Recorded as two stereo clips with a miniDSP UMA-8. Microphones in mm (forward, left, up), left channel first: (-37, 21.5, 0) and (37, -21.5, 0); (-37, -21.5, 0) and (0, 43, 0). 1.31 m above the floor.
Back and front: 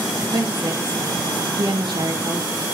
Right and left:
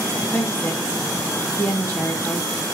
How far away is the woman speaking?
About 2 m.